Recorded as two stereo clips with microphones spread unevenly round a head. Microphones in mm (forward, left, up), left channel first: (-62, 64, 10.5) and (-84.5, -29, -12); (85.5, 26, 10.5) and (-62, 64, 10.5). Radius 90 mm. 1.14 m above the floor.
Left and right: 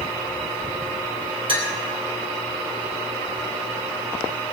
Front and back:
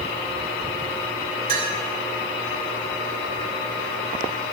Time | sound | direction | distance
1.5 | a clink | 130° right | 3 m